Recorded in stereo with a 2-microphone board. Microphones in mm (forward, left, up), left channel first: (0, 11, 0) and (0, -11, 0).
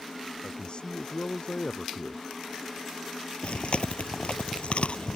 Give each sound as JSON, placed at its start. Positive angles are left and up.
{"t": 0.4, "sound": "a man speaking", "side_deg": 45}
{"t": 3.4, "sound": "chewing", "side_deg": 60}